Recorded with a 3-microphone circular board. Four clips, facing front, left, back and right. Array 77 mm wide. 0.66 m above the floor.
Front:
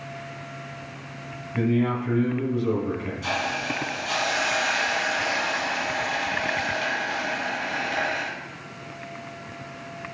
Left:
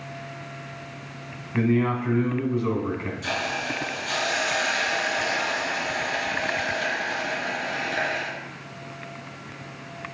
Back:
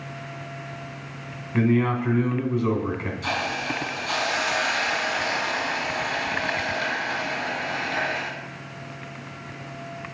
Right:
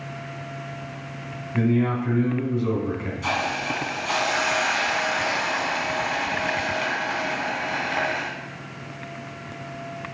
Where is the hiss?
110° right, 1.7 m.